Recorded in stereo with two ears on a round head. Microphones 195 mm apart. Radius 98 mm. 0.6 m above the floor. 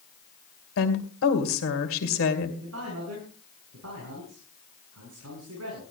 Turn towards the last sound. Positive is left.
turn(degrees=-75)  # may be behind; listen again after turning